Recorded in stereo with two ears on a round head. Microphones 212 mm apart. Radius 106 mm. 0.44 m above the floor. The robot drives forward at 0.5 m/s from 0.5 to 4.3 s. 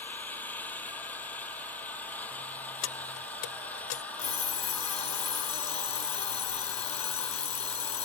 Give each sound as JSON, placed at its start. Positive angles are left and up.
{"t": 0.0, "sound": "an engine running", "side_deg": 5}
{"t": 2.8, "sound": "keys jangling", "side_deg": 55}
{"t": 4.2, "sound": "an alarm clock", "side_deg": 25}